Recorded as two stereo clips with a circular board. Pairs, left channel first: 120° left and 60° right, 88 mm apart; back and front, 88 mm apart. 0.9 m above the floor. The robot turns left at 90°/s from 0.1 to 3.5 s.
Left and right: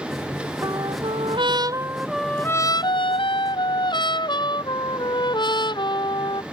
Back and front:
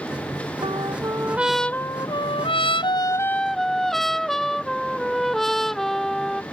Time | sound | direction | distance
0.6 | a trumpet | 10° right | ?